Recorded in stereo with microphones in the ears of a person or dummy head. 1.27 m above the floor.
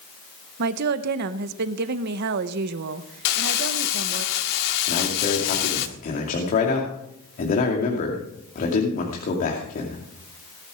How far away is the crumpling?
About 1.8 m.